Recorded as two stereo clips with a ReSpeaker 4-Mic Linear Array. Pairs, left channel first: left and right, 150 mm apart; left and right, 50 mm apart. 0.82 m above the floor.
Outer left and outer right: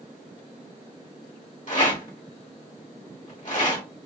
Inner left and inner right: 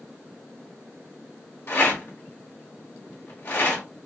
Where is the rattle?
55° left (ahead or behind), 1.4 m.